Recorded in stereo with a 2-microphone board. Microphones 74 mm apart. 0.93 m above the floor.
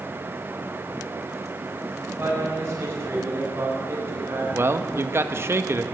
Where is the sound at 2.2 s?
35° right (ahead or behind), 6.5 m.